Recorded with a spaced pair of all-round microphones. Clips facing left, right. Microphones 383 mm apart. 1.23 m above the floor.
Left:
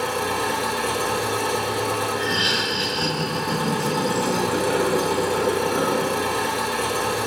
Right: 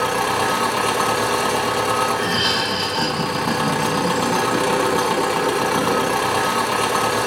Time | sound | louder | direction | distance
0.0 | an engine running | right 3 dB | 80° right | 1.0 m
2.1 | laughter | right 2 dB | 35° right (ahead or behind) | 2.5 m